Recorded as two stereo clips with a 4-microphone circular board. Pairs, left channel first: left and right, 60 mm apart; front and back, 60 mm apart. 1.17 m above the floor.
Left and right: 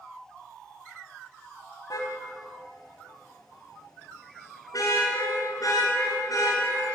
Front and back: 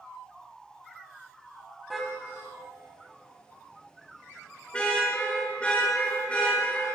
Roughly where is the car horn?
Left.